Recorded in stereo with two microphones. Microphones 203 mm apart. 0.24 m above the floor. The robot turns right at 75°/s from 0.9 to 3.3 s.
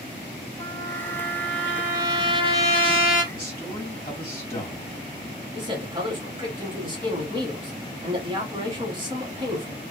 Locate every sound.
0.6 s a trumpet: 20° left (ahead or behind), 1.5 m; by 3.2 s 20° right (ahead or behind), 1.5 m
3.3 s a man speaking: 20° left (ahead or behind), 1.6 m
5.5 s a man speaking: 25° right (ahead or behind), 1.2 m